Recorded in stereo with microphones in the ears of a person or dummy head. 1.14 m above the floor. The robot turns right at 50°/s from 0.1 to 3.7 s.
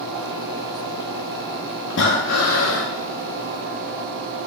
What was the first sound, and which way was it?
Breathing, 70° left.